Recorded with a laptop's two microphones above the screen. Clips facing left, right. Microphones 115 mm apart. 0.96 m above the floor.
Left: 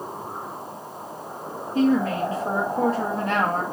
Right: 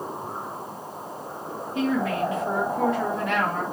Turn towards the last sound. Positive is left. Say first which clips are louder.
# left 4 dB
turn(degrees=35)  # may be behind; listen again after turning